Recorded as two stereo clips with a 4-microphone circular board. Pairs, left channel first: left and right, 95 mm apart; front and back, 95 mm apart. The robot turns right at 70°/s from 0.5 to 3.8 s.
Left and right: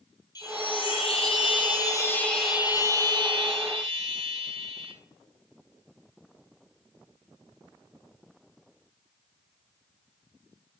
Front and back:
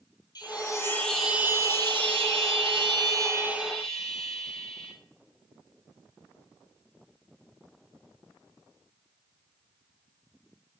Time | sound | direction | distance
0.3 | a chime | 45° left | 0.7 m